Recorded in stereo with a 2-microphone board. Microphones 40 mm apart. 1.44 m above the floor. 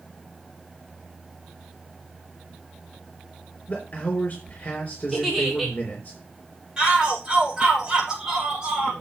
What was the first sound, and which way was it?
A man speaking, 45° left (ahead or behind).